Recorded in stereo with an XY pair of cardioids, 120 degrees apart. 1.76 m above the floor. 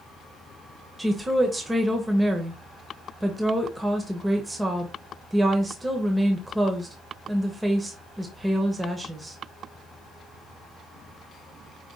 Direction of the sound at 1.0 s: 15° right.